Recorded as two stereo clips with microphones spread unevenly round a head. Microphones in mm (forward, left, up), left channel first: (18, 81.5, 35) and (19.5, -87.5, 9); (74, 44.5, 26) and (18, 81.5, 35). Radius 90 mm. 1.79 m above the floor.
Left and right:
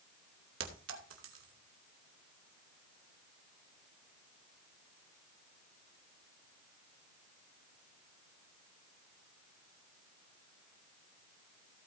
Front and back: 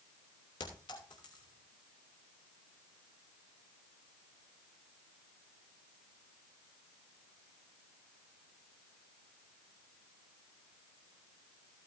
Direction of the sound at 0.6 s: 85° right.